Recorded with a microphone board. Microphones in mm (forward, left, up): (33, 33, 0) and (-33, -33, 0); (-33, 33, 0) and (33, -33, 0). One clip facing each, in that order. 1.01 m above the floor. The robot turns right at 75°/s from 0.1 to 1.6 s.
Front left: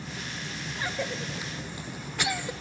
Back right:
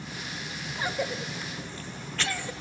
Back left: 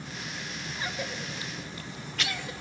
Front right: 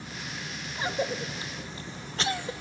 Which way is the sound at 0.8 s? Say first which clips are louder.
Back right 2 dB, front right 7 dB; 80° right.